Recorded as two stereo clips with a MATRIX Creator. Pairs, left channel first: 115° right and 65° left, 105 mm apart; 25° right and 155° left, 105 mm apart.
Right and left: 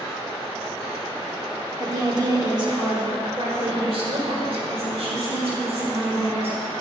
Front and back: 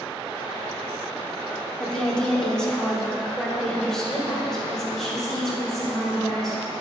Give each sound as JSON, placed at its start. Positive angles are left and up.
{"t": 1.8, "sound": "a woman speaking", "azimuth_deg": 50, "distance_m": 1.1}